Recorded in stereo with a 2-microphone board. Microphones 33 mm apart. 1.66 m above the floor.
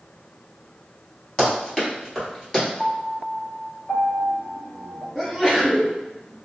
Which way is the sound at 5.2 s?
15° left (ahead or behind).